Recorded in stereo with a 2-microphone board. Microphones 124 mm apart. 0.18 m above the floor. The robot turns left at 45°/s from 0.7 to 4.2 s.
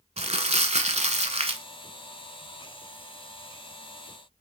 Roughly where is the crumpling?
Right.